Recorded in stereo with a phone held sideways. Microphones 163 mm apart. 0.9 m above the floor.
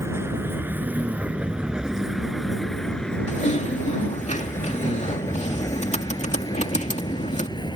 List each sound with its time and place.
0.0 s a vehicle: 15° right (ahead or behind); by 7.8 s 25° left (ahead or behind)
3.3 s typing on a keyboard: 45° left (ahead or behind)